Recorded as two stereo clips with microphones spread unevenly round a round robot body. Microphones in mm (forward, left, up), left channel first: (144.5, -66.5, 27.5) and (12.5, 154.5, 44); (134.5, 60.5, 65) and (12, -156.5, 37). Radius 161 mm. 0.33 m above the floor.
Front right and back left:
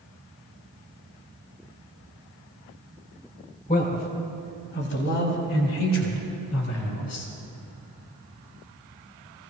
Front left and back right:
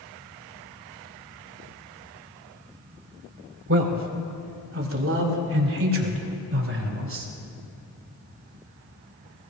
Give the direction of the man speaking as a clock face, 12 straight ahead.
4 o'clock.